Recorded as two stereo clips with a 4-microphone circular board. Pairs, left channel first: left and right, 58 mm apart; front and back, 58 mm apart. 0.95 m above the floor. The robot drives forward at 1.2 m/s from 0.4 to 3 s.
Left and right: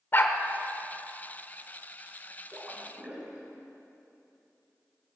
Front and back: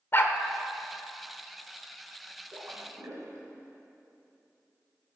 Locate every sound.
0.1 s a dog barking: 45° left, 1.0 m
2.5 s a splash: 145° right, 2.5 m; by 3.5 s 155° right, 3 m